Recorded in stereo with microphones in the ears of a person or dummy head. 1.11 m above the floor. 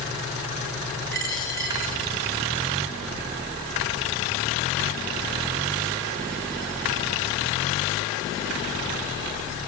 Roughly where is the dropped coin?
Right.